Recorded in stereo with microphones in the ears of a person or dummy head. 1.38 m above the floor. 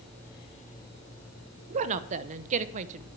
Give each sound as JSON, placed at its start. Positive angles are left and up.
{"t": 1.7, "sound": "a woman speaking", "side_deg": -40, "distance_m": 0.9}